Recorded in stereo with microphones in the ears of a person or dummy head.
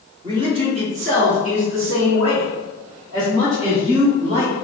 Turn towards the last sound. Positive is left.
turn(degrees=-25)  # may be behind; listen again after turning